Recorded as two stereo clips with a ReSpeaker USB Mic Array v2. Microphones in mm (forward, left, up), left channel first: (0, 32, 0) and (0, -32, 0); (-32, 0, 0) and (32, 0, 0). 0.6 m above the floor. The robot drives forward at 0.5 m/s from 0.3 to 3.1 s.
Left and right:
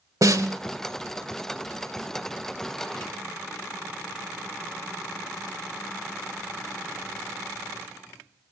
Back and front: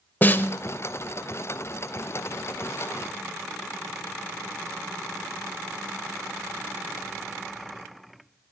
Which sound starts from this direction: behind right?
A snare drum, at 0.2 s.